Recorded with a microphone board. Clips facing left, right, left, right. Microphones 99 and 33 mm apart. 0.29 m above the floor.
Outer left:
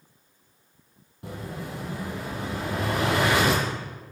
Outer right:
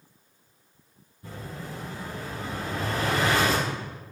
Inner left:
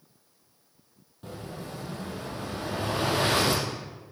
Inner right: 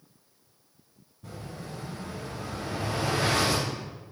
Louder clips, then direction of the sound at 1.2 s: Outer left 3 dB, inner left 2 dB; 75° left (ahead or behind).